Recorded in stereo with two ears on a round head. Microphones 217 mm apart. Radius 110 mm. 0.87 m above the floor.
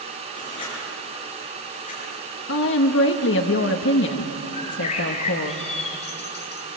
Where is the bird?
30° left (ahead or behind), 3 m.